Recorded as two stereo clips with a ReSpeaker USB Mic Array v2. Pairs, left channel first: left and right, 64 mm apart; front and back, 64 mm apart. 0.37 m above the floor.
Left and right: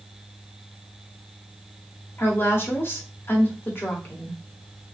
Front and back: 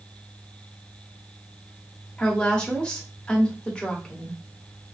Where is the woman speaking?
65° left, 1.4 m.